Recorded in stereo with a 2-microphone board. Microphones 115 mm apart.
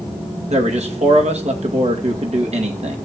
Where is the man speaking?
65° right (ahead or behind), 2.5 m.